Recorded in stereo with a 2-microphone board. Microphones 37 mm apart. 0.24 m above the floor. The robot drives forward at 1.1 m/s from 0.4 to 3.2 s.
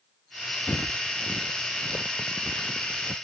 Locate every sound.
0.7 s footsteps: 60° left (ahead or behind); by 3.1 s 50° left (ahead or behind)